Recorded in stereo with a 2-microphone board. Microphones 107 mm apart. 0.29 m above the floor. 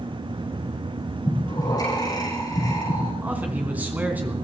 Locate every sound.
1.2 s breathing: 40° left (ahead or behind), 8 m
3.2 s a man speaking: 15° right (ahead or behind), 3 m